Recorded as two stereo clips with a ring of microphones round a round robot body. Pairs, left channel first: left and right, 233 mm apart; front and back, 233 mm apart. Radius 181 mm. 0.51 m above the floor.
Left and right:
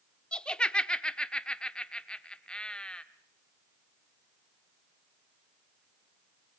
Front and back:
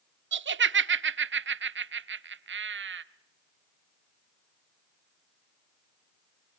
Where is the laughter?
175° left, 1.4 m.